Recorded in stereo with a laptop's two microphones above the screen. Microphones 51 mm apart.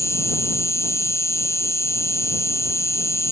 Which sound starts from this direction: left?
An insect, at 0.0 s.